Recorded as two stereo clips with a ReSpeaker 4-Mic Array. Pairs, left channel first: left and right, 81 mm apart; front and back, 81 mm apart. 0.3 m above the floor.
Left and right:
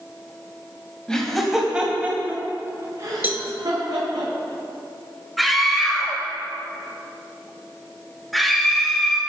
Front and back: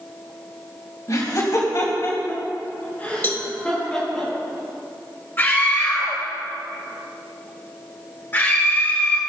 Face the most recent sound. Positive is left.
turn(degrees=0)